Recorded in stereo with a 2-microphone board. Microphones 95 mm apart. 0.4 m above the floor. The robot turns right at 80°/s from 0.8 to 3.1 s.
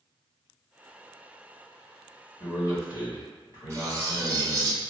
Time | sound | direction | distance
2.4 | a man speaking | 35° left | 2.0 m
3.7 | cutlery clinking | 30° right (ahead or behind) | 0.7 m